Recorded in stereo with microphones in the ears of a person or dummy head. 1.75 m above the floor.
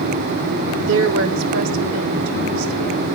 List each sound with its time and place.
0.8 s a woman speaking: 75° right (ahead or behind), 1.2 m; by 3.0 s 85° right, 2 m